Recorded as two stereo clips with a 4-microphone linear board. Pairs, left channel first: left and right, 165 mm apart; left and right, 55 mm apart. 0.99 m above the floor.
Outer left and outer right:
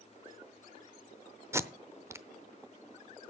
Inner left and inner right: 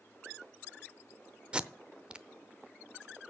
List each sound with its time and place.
1.5 s tape being pulled: 15° right (ahead or behind), 0.7 m